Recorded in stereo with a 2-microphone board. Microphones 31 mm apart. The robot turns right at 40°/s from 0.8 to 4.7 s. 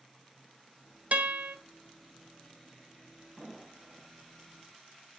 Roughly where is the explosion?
Right.